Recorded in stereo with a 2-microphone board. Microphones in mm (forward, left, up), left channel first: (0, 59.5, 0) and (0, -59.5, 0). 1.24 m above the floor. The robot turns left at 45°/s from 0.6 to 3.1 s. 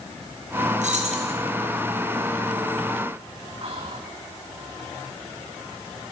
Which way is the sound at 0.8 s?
85° right.